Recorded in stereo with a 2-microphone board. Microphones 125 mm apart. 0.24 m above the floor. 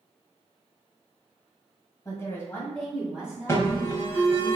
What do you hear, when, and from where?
2.0 s a woman speaking: 30° left (ahead or behind), 1.4 m; by 4.5 s 30° right (ahead or behind), 2 m
3.5 s an alarm: 20° left (ahead or behind), 1.0 m